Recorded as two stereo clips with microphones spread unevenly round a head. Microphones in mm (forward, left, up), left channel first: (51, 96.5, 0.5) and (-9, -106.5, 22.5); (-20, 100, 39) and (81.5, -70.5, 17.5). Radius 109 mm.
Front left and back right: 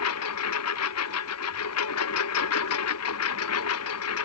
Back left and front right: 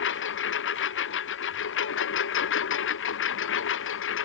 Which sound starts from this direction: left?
A lawn mower, at 0.0 s.